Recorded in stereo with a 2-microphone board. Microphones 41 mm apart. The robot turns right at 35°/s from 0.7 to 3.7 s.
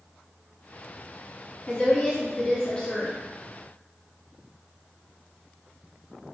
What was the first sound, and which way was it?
A woman speaking, 30° left (ahead or behind).